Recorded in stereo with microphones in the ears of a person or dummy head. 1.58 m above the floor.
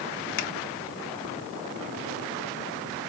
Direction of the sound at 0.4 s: 45° left (ahead or behind).